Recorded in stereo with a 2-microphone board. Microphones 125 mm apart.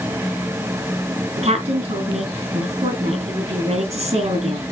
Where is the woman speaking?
60° right (ahead or behind), 5 m.